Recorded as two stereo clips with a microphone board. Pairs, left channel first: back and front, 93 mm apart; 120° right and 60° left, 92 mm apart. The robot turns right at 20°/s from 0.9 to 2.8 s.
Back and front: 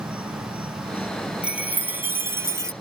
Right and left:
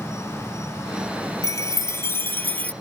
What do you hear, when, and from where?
0.0 s an insect: 25° right; by 2.8 s 15° left
1.4 s a chime: 75° right; by 2.7 s 50° right